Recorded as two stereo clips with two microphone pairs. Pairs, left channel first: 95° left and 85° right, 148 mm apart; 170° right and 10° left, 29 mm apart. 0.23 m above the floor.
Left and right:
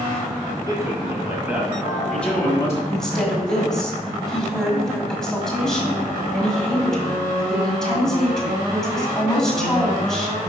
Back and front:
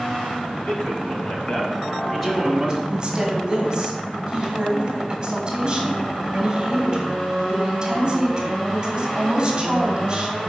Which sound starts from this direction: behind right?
A man speaking, at 0.7 s.